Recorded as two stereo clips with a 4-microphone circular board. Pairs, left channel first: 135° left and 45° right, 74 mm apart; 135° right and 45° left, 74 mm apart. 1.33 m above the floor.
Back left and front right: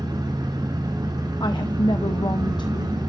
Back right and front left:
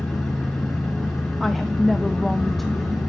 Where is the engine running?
45° right, 3.5 m.